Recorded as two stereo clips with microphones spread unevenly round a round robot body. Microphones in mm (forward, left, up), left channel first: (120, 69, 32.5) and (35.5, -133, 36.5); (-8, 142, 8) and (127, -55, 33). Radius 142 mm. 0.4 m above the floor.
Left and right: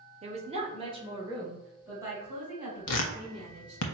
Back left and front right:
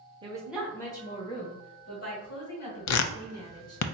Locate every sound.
0.2 s a woman speaking: 115° right, 1.0 m; by 3.8 s 165° left, 3.5 m
2.9 s tearing paper: 105° left, 0.5 m